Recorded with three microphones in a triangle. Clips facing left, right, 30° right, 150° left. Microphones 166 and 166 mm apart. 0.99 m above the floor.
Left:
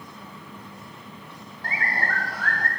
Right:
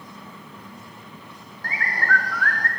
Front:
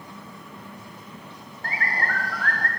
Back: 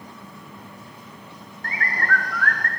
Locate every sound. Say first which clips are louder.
1.6 s a bird: right 2 dB, back 2 dB; 25° left, 2.5 m